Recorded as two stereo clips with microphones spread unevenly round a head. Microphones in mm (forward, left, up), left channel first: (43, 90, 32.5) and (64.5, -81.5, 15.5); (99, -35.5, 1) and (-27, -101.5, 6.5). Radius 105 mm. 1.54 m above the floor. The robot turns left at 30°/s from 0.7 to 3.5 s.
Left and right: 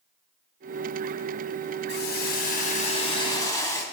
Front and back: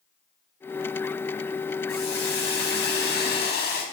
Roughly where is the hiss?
Left.